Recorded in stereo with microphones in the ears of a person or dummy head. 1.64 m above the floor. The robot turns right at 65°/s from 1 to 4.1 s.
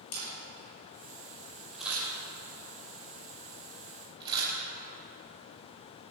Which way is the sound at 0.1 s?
50° left (ahead or behind).